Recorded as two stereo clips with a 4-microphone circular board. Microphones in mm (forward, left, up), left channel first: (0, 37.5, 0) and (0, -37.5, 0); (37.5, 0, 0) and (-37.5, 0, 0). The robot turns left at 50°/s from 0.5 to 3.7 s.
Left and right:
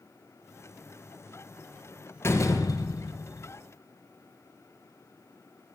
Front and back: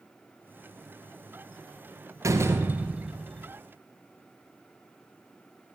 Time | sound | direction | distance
2.2 | a door slam | 140° left | 1.9 m